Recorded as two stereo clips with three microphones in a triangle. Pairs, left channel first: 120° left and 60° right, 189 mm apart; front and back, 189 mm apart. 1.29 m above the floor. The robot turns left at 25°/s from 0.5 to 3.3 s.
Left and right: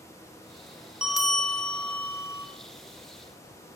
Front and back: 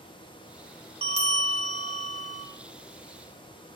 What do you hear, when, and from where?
1.0 s a bell: 145° right, 1.2 m; by 2.5 s straight behind, 1.2 m